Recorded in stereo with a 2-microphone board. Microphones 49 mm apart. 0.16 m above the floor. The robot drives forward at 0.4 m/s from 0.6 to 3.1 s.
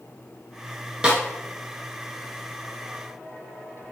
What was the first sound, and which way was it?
A snare drum, 20° right (ahead or behind).